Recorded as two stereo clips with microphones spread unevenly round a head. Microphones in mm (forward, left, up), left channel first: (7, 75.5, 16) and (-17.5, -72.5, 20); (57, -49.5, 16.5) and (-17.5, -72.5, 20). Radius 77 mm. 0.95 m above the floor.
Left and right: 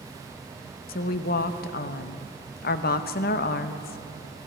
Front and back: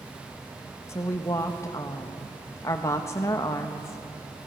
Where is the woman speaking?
75° left, 0.7 m.